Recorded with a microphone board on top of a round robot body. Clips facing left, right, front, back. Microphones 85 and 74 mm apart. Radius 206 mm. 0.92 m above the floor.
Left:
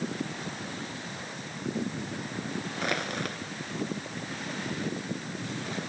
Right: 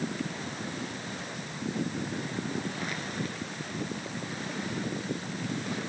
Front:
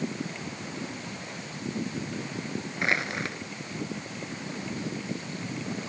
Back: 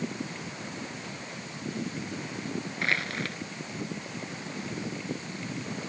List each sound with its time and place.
2.8 s crushing: 70° left